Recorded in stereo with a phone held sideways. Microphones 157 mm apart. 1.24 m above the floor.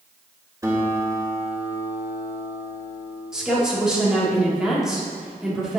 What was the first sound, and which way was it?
A guitar, 20° right (ahead or behind).